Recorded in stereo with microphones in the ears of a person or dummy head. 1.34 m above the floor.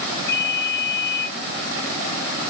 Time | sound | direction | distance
0.3 | a ringtone | 20° left (ahead or behind) | 4 m